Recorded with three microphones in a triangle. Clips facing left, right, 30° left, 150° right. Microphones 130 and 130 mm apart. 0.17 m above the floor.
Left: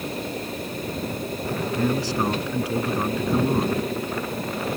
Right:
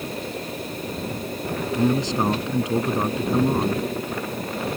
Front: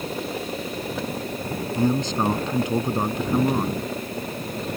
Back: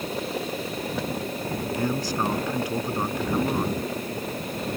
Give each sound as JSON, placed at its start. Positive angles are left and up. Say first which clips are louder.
{"t": 1.8, "sound": "a man speaking", "louder": "right 3 dB, front 6 dB", "azimuth_deg": -30}